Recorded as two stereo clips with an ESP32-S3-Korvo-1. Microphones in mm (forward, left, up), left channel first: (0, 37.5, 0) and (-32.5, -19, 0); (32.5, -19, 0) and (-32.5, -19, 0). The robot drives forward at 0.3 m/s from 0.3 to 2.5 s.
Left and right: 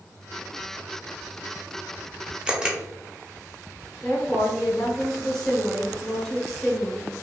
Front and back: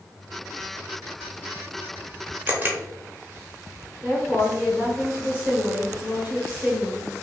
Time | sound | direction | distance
2.5 | a camera shutter | 175° right | 0.6 m
4.0 | a woman speaking | 145° left | 0.9 m